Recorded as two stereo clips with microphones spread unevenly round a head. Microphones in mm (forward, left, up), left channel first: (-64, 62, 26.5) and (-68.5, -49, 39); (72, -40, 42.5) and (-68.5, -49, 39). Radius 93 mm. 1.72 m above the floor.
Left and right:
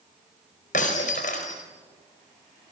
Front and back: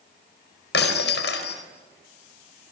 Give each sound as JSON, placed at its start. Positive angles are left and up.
{"t": 0.7, "sound": "breaking glass", "azimuth_deg": 40, "distance_m": 4.5}